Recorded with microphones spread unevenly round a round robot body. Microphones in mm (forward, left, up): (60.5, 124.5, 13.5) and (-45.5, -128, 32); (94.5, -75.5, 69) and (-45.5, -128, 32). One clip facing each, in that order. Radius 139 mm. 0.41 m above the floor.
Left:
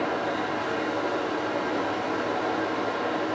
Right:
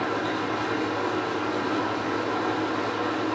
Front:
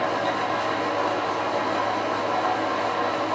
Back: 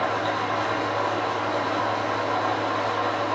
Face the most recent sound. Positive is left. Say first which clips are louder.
# right 1 dB, front 1 dB
turn(degrees=-60)